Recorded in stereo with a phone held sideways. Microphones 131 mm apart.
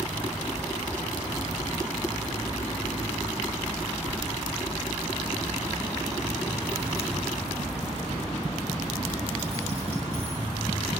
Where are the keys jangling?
20° right (ahead or behind), 0.6 m; by 10.4 s 45° right (ahead or behind), 10 m.